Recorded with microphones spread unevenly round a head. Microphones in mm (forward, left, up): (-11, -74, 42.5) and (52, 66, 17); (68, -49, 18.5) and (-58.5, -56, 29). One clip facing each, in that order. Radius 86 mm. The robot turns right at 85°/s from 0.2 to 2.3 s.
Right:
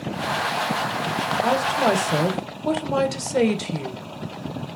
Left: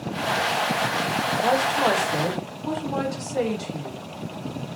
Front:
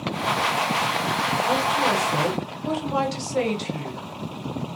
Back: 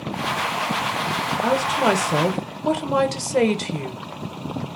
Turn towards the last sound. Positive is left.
turn(degrees=-140)